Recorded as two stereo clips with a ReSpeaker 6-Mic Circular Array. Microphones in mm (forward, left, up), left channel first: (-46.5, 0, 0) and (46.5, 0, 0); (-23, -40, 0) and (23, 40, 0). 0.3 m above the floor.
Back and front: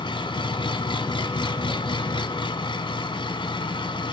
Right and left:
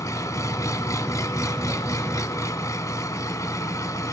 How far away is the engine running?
About 1.1 m.